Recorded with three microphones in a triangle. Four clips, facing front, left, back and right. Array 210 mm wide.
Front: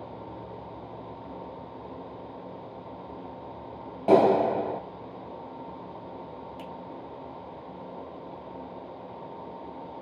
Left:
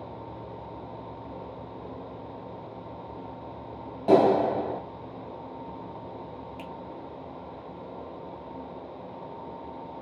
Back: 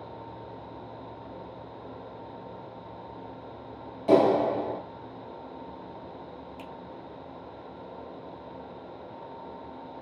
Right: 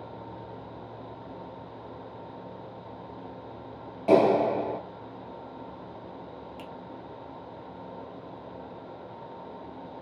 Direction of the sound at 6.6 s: 175° right.